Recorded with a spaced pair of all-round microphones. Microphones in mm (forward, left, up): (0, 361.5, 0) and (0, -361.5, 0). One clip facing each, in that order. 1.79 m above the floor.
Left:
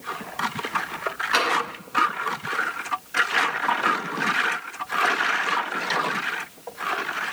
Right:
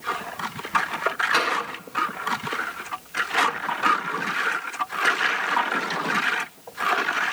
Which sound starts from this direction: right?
Tapping, at 1.3 s.